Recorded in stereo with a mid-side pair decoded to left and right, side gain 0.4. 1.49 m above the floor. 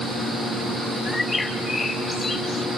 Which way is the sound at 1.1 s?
45° left.